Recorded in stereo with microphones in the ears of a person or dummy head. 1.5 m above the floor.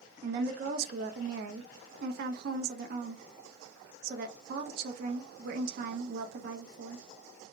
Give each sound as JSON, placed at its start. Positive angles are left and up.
{"t": 0.2, "sound": "a woman speaking", "side_deg": -60, "distance_m": 0.5}